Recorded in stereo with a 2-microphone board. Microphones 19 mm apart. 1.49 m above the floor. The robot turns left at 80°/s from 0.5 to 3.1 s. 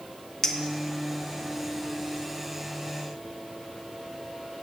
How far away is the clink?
About 0.7 m.